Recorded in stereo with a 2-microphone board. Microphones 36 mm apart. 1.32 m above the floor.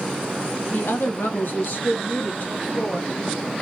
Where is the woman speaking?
85° left, 1.3 m; by 3.1 s 40° left (ahead or behind), 1.9 m.